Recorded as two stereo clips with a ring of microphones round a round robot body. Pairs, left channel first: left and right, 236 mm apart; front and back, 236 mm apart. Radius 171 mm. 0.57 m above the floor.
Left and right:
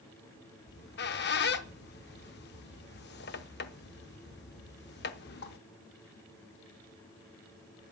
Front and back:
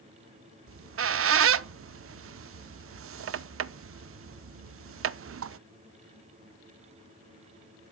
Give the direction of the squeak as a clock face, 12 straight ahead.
7 o'clock.